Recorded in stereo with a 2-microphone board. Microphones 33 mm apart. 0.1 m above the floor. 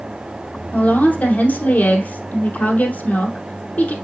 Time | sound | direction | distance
0.7 | a woman speaking | 60° left (ahead or behind) | 2.5 m